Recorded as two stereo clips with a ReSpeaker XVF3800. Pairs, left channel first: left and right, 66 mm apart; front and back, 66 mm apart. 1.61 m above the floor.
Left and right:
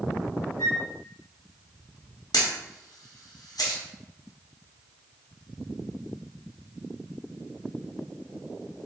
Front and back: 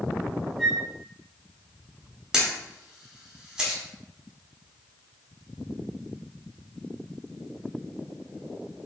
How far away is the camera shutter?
About 0.5 m.